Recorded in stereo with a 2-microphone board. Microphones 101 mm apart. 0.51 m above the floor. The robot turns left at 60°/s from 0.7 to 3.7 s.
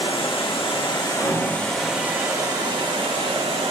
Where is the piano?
Centre (ahead or behind), 2 m; by 2.0 s 45° left (ahead or behind), 2 m.